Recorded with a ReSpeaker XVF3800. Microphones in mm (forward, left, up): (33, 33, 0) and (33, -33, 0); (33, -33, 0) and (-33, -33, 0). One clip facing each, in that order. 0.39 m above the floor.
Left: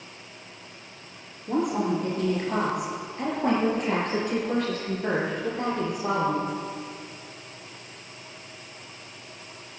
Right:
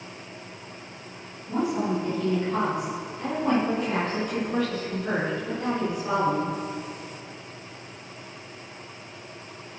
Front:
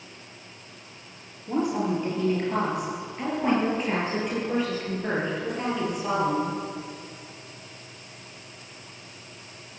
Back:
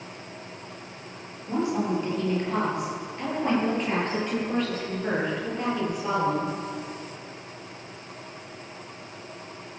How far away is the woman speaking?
About 7.5 m.